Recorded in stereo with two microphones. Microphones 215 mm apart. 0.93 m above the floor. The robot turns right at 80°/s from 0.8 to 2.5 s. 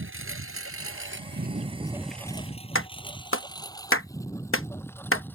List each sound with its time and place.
0.0 s a lawn mower: 65° right (ahead or behind); by 5.3 s 10° left (ahead or behind)
2.8 s a clap: 70° left (ahead or behind)